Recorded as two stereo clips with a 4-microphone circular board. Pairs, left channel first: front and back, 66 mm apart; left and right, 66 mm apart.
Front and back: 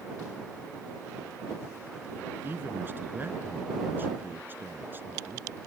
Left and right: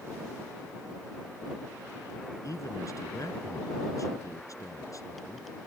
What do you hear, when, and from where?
2.4 s a man speaking: 120° left